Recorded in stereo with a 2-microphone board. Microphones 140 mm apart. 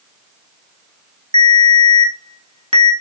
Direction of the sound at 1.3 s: 45° right (ahead or behind).